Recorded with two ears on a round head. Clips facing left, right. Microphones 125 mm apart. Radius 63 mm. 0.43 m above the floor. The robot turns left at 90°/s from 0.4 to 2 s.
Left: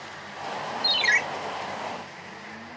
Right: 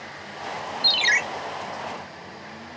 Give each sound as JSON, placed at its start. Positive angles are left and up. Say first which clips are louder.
{"t": 0.8, "sound": "a ringtone", "louder": "right 2 dB", "azimuth_deg": -105, "distance_m": 0.7}